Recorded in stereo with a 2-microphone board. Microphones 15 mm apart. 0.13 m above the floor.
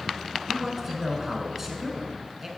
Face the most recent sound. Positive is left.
turn(degrees=-15)  # may be behind; listen again after turning